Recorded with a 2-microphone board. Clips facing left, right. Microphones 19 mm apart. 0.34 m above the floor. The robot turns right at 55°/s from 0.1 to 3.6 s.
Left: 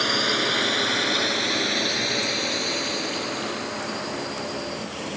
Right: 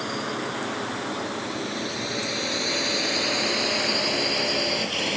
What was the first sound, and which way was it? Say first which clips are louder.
A drone: left 7 dB; 50° left (ahead or behind).